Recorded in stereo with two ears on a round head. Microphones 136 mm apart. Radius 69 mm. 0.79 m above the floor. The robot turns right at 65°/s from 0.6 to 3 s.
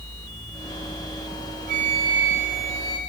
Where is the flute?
60° right, 1.5 m; by 3.0 s 25° left, 1.5 m.